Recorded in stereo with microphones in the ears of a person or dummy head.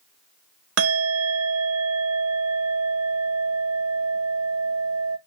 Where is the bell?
65° right (ahead or behind), 0.7 m.